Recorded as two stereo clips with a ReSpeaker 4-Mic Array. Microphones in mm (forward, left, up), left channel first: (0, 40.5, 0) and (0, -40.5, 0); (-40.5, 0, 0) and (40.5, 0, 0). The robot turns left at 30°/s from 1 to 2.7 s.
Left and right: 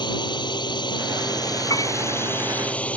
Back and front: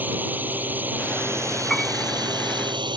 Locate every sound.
0.0 s a drone: 65° left; by 3.0 s 15° left
1.7 s a piano: 95° left; by 1.9 s 90° left